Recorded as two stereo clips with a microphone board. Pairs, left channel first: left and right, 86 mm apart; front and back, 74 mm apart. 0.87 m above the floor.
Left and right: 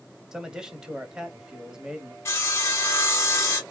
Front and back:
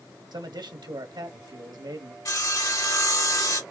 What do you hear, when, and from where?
0.3 s a man speaking: 170° right, 1.2 m
2.2 s sawing: 35° left, 1.9 m